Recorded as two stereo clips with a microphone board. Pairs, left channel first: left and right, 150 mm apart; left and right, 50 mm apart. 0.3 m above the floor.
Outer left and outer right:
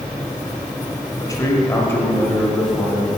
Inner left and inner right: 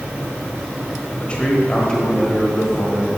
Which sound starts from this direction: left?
A man speaking, at 1.2 s.